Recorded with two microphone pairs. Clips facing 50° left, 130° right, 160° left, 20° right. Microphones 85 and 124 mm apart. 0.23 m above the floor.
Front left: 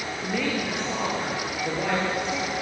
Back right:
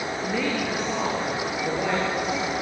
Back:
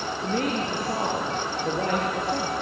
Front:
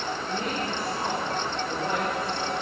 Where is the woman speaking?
145° left, 4.5 m.